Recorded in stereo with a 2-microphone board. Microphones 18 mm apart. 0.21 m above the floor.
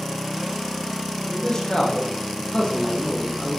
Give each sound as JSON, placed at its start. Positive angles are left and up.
{"t": 1.3, "sound": "a man speaking", "side_deg": 50, "distance_m": 7.5}